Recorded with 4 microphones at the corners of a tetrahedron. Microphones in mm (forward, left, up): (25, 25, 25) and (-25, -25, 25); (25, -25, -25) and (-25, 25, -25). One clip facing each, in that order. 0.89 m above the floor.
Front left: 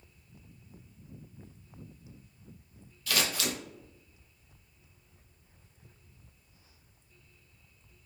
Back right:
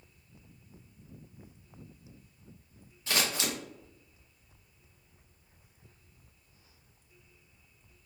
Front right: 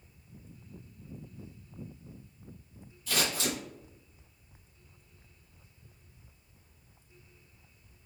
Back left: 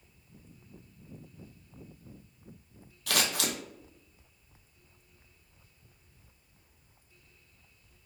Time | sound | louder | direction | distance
3.1 | scissors | even, back left 1 dB | 160° left | 0.6 m